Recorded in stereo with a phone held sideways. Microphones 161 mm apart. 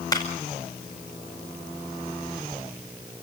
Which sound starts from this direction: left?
A clap, at 0.1 s.